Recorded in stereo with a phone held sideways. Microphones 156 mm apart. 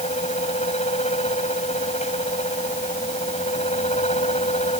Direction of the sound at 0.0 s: 45° left (ahead or behind).